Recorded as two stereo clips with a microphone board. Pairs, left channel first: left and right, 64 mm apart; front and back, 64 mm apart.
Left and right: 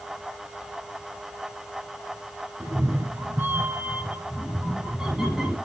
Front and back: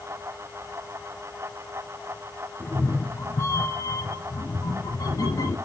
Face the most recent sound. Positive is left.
turn(degrees=-5)